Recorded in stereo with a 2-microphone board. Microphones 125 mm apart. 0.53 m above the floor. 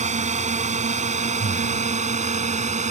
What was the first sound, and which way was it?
A drone, 75° right (ahead or behind).